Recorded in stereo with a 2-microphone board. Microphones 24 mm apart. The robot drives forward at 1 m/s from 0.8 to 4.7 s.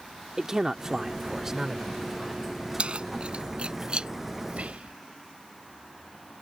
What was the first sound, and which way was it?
A man speaking, 25° right (ahead or behind).